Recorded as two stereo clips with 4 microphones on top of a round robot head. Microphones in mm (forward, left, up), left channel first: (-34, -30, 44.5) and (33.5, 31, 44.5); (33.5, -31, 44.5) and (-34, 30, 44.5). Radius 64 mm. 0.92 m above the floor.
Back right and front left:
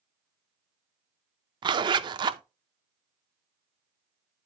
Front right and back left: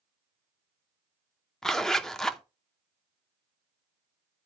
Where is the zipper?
40° left, 0.7 m.